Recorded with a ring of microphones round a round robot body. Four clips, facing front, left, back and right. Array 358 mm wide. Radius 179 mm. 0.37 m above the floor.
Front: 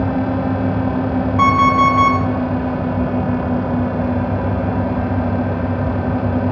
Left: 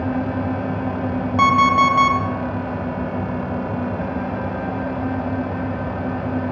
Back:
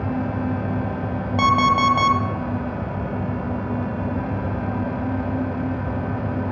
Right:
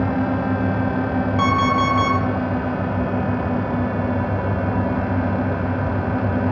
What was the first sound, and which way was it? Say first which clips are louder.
An alarm clock: left 5 dB, front 4 dB; 155° left.